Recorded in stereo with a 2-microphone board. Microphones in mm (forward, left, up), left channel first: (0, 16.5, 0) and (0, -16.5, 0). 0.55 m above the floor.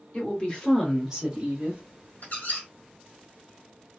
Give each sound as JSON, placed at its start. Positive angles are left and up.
{"t": 0.1, "sound": "a woman speaking", "side_deg": 45, "distance_m": 1.6}
{"t": 2.2, "sound": "a squeak", "side_deg": 60, "distance_m": 1.2}